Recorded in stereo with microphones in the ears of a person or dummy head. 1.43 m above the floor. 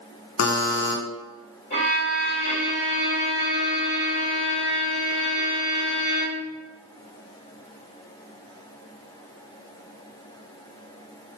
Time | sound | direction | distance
0.4 | a buzzer | 75° left (ahead or behind) | 0.7 m
1.7 | a violin | 50° left (ahead or behind) | 1.9 m